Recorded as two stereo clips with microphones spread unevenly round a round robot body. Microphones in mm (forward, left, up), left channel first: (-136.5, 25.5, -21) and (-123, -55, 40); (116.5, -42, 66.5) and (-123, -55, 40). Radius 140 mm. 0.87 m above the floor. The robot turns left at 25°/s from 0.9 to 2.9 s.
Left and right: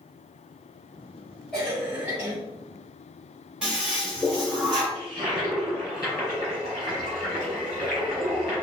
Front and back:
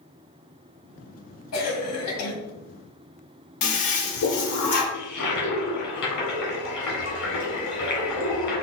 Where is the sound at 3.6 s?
Straight ahead, 1.0 m.